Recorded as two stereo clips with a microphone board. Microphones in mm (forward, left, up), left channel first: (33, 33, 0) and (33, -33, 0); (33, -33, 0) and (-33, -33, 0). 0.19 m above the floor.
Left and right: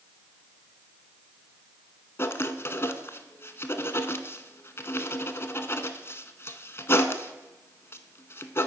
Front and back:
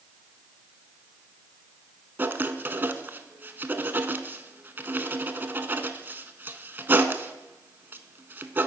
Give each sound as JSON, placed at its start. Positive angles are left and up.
{"t": 2.2, "sound": "writing", "azimuth_deg": 130, "distance_m": 0.6}